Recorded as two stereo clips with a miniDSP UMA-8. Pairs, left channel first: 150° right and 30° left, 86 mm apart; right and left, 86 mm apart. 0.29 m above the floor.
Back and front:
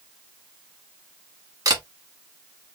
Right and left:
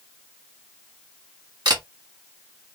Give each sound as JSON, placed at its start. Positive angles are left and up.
{"t": 1.6, "sound": "a camera shutter", "azimuth_deg": 65, "distance_m": 1.2}